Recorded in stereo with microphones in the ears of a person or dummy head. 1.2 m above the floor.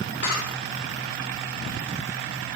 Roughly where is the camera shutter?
Left.